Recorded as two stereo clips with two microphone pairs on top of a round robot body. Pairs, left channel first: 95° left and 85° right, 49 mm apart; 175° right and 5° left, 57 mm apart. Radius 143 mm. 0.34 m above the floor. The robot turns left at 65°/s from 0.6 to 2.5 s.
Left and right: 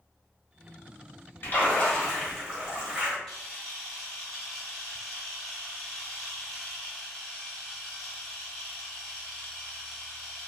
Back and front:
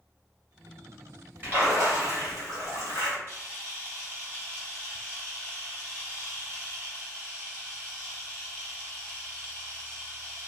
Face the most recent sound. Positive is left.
turn(degrees=25)